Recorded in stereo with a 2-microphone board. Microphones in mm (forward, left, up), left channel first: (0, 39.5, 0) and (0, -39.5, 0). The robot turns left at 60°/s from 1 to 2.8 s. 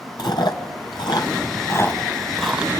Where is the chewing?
70° left (ahead or behind), 2 m; by 2.7 s 15° right (ahead or behind), 2 m.